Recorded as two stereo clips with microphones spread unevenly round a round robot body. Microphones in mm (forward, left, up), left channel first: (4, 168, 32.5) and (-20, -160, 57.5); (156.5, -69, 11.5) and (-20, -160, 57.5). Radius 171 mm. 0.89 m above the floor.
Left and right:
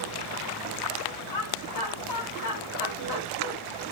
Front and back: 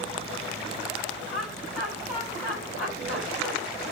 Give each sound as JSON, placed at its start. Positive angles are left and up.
{"t": 1.3, "sound": "laughter", "azimuth_deg": 90, "distance_m": 4.0}